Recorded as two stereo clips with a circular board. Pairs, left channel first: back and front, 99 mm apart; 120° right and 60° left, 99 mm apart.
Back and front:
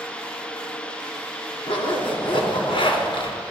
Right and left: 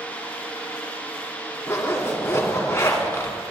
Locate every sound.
1.7 s a zipper: straight behind, 2 m